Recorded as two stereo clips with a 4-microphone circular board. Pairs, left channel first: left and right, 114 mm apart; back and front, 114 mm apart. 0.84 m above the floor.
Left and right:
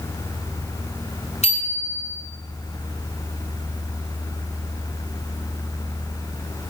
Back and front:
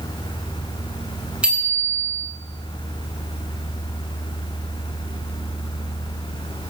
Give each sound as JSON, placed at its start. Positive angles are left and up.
{"t": 1.4, "sound": "a bicycle bell", "azimuth_deg": 80, "distance_m": 7.0}